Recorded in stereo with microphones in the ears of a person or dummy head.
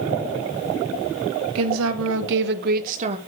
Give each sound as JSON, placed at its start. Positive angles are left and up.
{"t": 1.6, "sound": "a woman speaking", "side_deg": -80, "distance_m": 1.6}